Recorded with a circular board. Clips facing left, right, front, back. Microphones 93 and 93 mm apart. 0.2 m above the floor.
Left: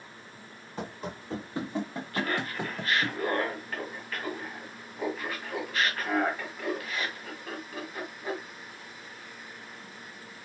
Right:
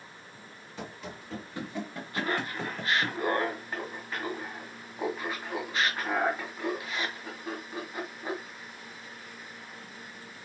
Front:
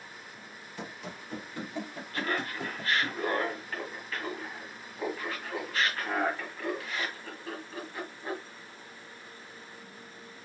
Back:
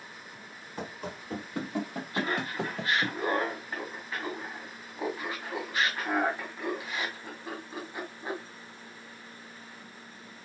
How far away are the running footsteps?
About 1.7 m.